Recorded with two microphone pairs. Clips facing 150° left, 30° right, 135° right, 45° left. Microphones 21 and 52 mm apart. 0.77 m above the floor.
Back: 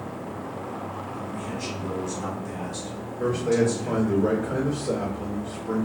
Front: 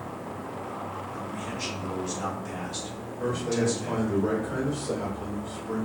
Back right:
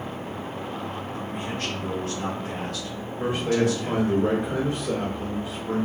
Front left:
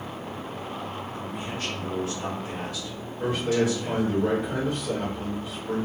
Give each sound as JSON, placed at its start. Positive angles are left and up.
{"t": 1.1, "sound": "a man speaking", "azimuth_deg": -100, "distance_m": 1.6}
{"t": 3.2, "sound": "a man speaking", "azimuth_deg": 160, "distance_m": 2.0}